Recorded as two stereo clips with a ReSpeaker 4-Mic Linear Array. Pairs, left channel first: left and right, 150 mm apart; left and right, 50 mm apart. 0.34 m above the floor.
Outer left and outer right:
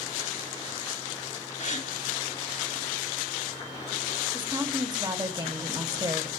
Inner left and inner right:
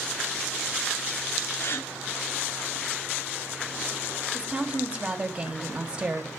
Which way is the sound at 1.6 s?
55° left (ahead or behind).